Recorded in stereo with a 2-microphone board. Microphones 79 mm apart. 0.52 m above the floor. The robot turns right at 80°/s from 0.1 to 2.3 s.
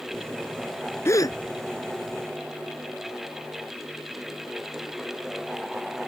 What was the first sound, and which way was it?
A gasp, 30° left (ahead or behind).